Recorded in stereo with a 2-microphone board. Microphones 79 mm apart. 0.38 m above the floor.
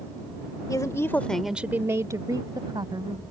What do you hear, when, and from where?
0.7 s a woman speaking: 50° left (ahead or behind); by 3.2 s 70° right (ahead or behind)